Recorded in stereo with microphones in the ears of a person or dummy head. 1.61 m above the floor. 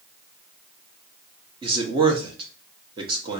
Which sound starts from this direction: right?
A man speaking, at 1.6 s.